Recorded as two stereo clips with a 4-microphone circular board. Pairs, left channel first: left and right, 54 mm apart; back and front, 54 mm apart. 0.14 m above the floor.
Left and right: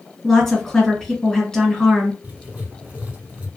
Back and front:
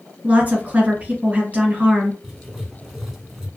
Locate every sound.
0.2 s a woman speaking: 20° left, 1.4 m
2.2 s writing: 75° right, 1.0 m